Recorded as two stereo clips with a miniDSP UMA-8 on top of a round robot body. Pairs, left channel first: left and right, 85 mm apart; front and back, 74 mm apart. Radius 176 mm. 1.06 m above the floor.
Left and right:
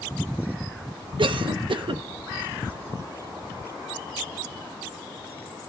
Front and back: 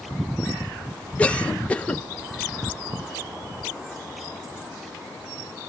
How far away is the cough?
About 1.2 m.